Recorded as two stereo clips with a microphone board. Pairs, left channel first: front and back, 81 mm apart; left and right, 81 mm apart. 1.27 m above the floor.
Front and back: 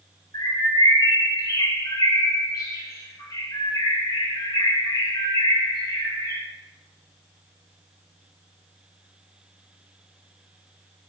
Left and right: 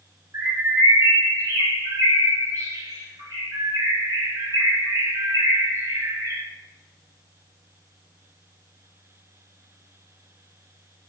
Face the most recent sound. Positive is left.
turn(degrees=-40)